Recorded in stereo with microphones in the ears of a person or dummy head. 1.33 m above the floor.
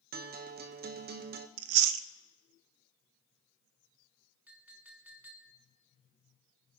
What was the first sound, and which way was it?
A guitar, 50° right (ahead or behind).